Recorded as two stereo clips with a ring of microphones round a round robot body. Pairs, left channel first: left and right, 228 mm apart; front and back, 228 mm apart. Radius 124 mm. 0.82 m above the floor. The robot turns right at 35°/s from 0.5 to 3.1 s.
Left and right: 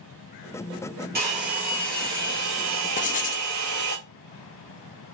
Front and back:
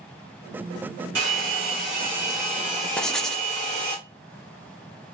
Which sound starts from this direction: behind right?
A hair dryer, at 1.1 s.